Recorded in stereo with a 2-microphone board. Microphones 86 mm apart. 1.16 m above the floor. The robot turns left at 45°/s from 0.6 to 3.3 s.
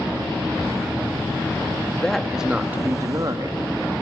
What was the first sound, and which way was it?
A woman speaking, 10° left.